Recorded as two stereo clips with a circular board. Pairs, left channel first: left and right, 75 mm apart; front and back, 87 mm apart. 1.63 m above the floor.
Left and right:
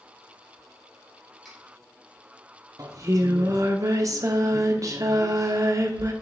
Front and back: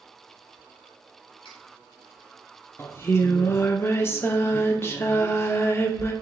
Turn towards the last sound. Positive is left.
turn(degrees=-55)